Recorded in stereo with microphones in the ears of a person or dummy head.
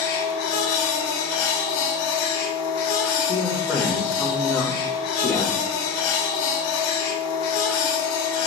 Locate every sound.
0.0 s a machine running: 70° left (ahead or behind), 0.9 m
3.3 s a man speaking: 10° left (ahead or behind), 0.8 m